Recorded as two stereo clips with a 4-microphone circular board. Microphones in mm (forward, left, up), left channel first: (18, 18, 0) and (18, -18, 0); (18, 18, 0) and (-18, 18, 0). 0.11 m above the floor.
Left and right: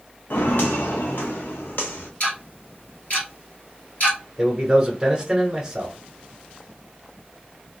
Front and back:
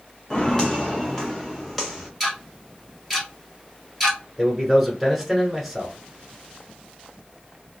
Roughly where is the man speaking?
Right.